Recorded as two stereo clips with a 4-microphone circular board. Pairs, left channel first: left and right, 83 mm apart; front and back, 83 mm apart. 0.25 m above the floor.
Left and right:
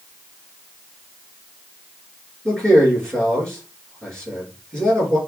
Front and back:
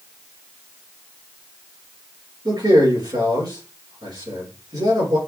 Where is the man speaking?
170° left, 3.5 m.